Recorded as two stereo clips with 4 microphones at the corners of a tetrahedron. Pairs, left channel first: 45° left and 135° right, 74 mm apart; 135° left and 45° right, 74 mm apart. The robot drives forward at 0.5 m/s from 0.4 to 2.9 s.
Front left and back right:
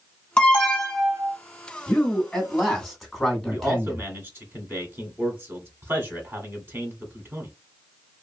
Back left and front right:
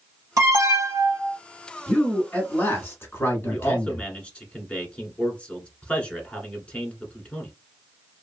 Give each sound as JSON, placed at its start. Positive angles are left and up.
{"t": 0.4, "sound": "an alarm", "azimuth_deg": -25, "distance_m": 1.5}
{"t": 1.9, "sound": "a man speaking", "azimuth_deg": 105, "distance_m": 1.7}
{"t": 3.5, "sound": "a man speaking", "azimuth_deg": -165, "distance_m": 1.3}